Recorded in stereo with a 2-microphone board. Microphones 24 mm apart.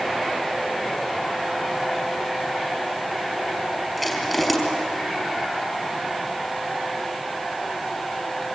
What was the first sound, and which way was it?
Crushing, centre (ahead or behind).